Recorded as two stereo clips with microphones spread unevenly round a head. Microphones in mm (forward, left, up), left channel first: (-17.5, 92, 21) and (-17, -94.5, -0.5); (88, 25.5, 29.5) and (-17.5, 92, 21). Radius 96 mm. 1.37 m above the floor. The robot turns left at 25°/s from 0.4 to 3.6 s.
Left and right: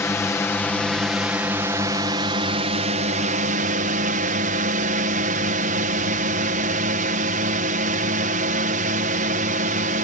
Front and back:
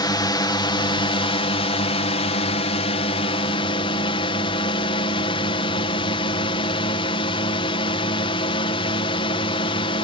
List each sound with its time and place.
0.0 s a drone: 10° left; by 10.0 s 70° right